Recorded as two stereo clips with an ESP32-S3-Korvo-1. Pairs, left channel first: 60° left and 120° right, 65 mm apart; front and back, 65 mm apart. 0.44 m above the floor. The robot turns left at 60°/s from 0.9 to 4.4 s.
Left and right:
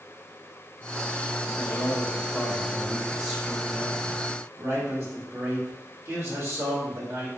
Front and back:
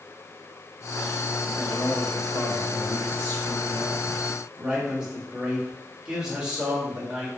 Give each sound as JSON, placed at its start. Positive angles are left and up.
{"t": 1.6, "sound": "a man speaking", "azimuth_deg": 65, "distance_m": 1.3}